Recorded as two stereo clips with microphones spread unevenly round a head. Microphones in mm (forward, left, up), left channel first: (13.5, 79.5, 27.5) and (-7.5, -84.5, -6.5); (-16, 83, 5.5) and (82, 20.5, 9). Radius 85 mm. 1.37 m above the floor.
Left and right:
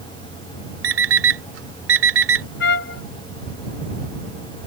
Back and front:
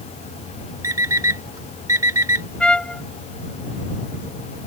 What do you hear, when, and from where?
0.8 s an alarm clock: 100° right
2.6 s a trumpet: 65° left